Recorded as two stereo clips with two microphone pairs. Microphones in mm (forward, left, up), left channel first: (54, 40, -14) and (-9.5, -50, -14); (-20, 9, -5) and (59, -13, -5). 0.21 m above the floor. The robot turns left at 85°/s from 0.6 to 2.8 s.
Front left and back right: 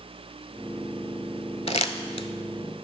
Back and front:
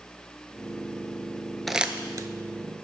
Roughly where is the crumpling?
Left.